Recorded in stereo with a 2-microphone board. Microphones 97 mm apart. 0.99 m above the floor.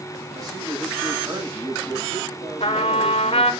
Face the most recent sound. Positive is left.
turn(degrees=75)  # may be behind; listen again after turning